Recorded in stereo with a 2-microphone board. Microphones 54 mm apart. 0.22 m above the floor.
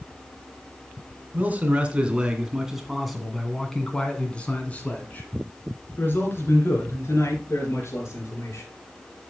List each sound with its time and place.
1.3 s a man speaking: 30° right (ahead or behind), 2.5 m; by 8.7 s 55° left (ahead or behind), 4.5 m